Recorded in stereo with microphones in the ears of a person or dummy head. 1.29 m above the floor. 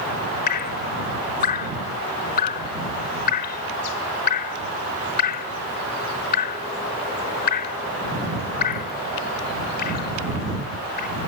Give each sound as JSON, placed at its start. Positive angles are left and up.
{"t": 0.5, "sound": "dripping", "side_deg": 50}